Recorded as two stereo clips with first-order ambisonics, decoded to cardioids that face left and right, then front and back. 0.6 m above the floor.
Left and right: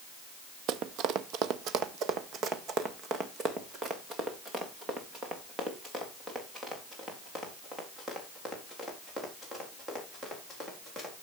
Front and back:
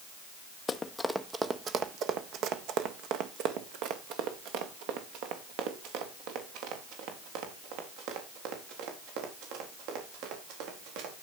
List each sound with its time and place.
0.7 s running footsteps: 70° right, 0.8 m; by 11.2 s 170° right, 6.5 m